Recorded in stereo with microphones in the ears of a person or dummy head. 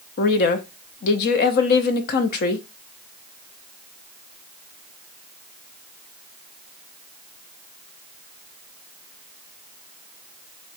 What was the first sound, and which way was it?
A woman speaking, 50° left (ahead or behind).